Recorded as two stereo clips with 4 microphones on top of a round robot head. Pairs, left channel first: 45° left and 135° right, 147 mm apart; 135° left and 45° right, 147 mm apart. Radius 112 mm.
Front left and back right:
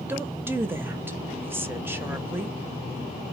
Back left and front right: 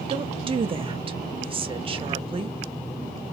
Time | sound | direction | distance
0.1 | a woman speaking | 65° right | 0.7 m